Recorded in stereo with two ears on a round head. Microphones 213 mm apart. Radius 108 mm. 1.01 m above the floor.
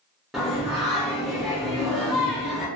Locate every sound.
0.3 s singing: centre (ahead or behind), 0.8 m